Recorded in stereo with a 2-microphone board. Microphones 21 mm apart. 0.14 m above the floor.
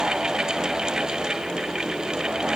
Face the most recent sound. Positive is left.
No sound to turn to.